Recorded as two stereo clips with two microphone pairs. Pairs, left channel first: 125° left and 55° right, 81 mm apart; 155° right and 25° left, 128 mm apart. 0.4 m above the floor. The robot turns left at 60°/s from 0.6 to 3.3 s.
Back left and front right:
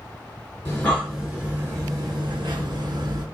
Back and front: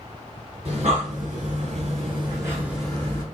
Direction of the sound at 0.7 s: 65° left.